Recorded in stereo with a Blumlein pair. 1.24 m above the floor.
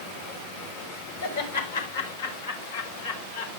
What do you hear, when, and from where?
1.2 s laughter: 70° left, 5.5 m; by 3.6 s 60° left, 4 m